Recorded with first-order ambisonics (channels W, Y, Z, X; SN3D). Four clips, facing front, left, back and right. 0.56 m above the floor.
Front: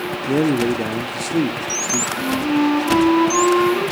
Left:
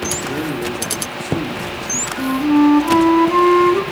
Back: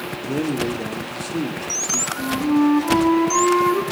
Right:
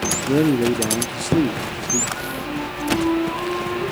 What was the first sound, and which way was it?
A man speaking, 55° right.